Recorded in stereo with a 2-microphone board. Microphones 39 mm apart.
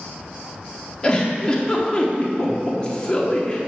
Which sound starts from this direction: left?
A giggle, at 1.0 s.